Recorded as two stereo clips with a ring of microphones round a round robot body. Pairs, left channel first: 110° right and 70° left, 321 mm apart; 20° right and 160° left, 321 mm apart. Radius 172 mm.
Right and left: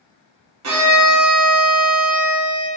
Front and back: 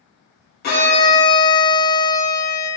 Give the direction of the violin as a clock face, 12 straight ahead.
11 o'clock.